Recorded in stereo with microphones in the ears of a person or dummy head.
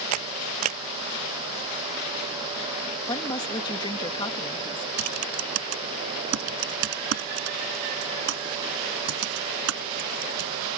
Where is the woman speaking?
25° left (ahead or behind).